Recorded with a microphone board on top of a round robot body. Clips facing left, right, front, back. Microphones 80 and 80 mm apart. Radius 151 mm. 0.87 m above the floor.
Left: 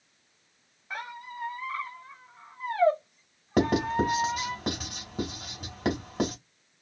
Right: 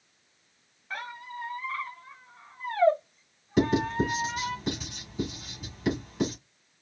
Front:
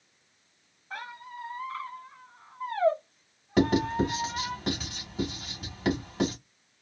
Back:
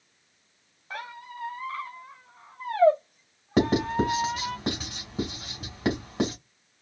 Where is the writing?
120° left, 2.5 m.